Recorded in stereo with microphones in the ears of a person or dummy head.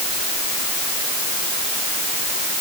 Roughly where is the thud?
I don't hear a thud.